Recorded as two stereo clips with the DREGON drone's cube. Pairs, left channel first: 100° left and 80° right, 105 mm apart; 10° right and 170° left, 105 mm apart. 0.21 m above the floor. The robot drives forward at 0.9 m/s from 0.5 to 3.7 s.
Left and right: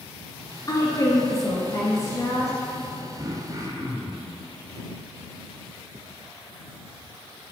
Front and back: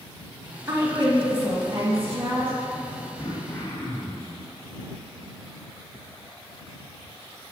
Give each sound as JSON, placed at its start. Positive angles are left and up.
{"t": 0.7, "sound": "a woman speaking", "azimuth_deg": 120, "distance_m": 1.6}
{"t": 3.2, "sound": "throat clearing", "azimuth_deg": -45, "distance_m": 2.0}